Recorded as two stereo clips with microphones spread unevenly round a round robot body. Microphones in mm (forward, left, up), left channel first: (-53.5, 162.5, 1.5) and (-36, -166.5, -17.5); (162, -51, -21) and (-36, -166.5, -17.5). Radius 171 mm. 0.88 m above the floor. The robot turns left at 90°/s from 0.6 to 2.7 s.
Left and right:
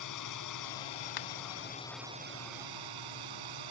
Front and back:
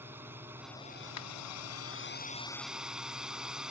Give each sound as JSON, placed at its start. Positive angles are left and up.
{"t": 0.0, "sound": "a drone", "azimuth_deg": 125}
{"t": 1.2, "sound": "a finger snap", "azimuth_deg": 65}